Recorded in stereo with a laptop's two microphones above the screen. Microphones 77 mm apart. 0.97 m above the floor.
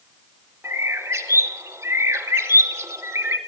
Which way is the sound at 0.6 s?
30° right (ahead or behind).